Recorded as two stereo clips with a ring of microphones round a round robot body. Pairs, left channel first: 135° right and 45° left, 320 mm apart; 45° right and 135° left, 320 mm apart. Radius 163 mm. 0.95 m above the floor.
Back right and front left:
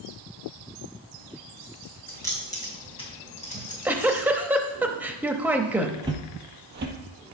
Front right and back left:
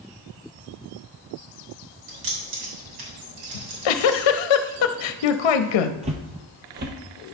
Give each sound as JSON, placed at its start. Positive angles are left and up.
{"t": 2.1, "sound": "keys jangling", "azimuth_deg": 140, "distance_m": 4.0}
{"t": 3.5, "sound": "a giggle", "azimuth_deg": -40, "distance_m": 0.7}
{"t": 6.0, "sound": "footsteps", "azimuth_deg": 105, "distance_m": 1.0}